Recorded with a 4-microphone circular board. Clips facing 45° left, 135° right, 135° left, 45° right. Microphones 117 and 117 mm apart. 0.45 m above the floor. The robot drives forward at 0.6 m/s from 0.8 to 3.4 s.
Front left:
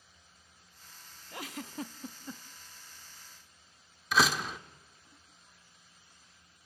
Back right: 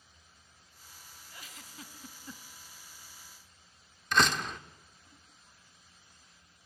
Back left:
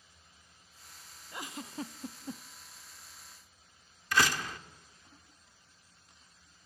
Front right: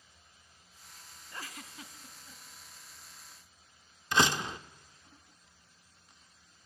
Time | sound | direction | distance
1.3 | a giggle | 60° left | 0.7 m
4.1 | a door slam | 35° right | 0.7 m